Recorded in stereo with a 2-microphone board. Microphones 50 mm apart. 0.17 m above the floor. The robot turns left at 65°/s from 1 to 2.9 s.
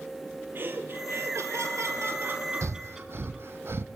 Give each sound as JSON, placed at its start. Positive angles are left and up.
{"t": 0.6, "sound": "laughter", "azimuth_deg": -45, "distance_m": 3.0}
{"t": 2.6, "sound": "breathing", "side_deg": -75, "distance_m": 1.0}